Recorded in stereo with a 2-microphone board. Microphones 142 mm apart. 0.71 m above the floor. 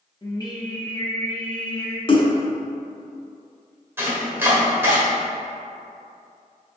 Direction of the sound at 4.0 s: 15° right (ahead or behind).